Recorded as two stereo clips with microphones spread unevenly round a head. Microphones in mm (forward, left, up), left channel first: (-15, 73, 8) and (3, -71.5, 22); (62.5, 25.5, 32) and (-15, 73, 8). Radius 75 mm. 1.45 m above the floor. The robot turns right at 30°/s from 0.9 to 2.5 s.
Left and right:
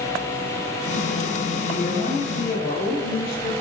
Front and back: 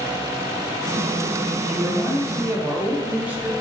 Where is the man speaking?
55° left, 4 m; by 3.5 s 80° left, 4 m.